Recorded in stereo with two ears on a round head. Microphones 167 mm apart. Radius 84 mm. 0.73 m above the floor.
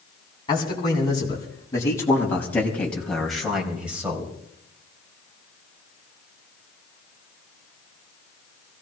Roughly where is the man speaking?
Left.